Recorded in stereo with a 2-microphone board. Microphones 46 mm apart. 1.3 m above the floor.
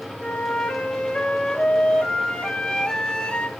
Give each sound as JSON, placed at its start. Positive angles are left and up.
{"t": 0.2, "sound": "a flute", "side_deg": 20, "distance_m": 1.7}